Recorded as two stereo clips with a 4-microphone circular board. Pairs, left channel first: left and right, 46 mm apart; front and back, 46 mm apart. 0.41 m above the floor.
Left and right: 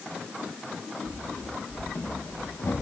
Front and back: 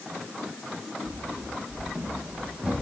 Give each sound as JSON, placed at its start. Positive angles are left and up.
{"t": 1.1, "sound": "running footsteps", "azimuth_deg": 125, "distance_m": 5.0}